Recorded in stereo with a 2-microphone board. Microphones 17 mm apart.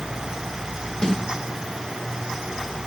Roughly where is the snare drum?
Left.